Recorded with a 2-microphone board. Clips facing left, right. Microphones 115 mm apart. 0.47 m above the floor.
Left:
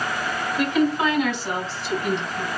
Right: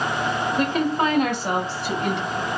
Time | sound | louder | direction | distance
0.6 | a woman speaking | left 3 dB | 35° right (ahead or behind) | 1.6 m